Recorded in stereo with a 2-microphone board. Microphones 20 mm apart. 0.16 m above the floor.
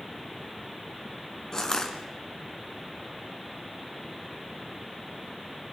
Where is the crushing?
30° left (ahead or behind), 2 m.